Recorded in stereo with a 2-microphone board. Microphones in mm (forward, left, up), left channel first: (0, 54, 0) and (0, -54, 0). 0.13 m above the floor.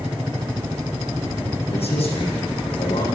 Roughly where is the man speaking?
Left.